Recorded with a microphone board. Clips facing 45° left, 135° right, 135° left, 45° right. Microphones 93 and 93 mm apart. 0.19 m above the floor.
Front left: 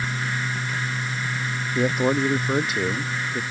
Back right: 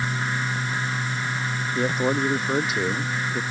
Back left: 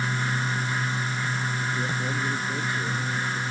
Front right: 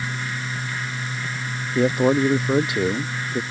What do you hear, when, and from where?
1.8 s a man speaking: 40° right; by 3.4 s 50° right